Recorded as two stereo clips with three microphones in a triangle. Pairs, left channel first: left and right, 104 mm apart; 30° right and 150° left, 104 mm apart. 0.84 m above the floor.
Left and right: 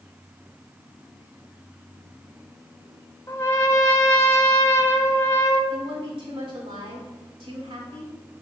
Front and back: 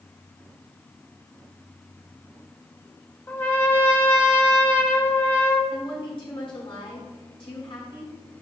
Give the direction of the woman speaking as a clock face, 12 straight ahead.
2 o'clock.